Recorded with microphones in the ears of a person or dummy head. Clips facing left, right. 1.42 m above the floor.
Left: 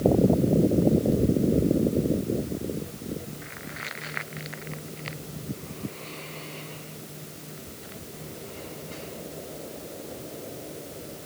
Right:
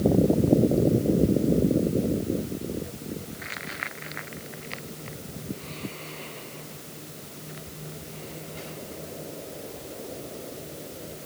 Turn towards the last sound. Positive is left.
No sound to turn to.